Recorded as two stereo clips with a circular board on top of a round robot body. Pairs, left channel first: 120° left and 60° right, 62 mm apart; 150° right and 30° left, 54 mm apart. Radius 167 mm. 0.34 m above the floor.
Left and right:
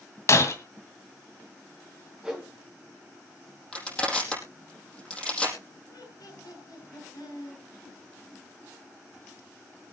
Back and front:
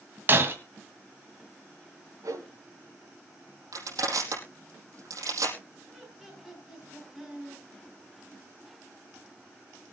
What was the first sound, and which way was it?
Breaking glass, 80° left.